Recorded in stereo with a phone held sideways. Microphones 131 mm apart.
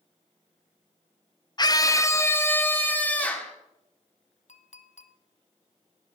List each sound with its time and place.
1.6 s a scream: 35° left (ahead or behind), 0.7 m; by 3.5 s 10° left (ahead or behind), 2 m
4.5 s a clink: 65° left (ahead or behind), 0.7 m